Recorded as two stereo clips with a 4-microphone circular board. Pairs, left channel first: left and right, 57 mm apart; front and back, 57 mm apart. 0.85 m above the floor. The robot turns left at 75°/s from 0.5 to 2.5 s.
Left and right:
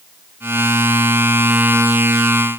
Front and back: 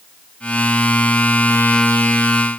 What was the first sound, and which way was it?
Only background noise.